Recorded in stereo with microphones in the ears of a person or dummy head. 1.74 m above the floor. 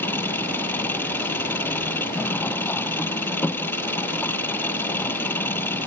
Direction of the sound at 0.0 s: 15° left (ahead or behind).